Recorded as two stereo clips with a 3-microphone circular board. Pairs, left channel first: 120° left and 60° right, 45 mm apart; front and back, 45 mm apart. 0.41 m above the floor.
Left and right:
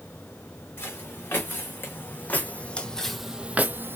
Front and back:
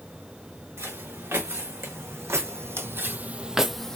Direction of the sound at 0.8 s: 155° left.